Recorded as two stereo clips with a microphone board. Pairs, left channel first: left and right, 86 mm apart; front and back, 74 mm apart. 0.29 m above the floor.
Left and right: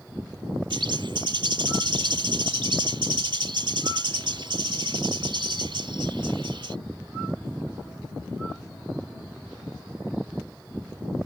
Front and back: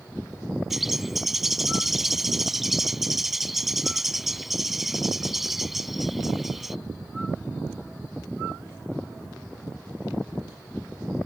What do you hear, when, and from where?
0.7 s a bird: 95° right